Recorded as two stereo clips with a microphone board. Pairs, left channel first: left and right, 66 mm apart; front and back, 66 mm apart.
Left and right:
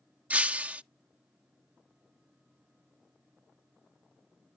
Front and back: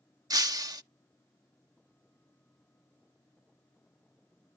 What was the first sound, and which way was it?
Breaking glass, 160° right.